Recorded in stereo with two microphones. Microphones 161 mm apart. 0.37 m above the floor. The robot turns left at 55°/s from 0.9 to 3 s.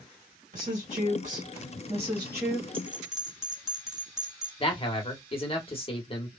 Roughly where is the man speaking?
Left.